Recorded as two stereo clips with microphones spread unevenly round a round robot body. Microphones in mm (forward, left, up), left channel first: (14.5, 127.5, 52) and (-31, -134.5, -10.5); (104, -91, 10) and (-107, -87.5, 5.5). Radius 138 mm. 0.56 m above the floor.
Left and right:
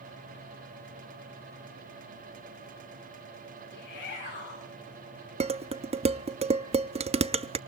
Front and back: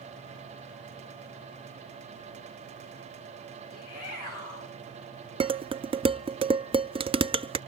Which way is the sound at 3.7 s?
25° left.